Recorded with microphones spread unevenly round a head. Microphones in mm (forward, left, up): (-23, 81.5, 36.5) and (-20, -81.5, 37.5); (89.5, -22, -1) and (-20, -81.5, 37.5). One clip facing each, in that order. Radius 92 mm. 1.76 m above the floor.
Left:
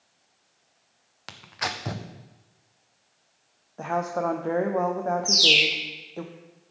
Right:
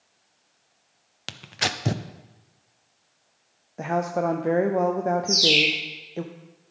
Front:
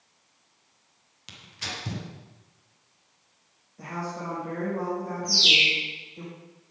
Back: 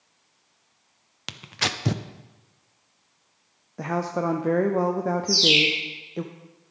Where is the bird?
115° left, 4 m.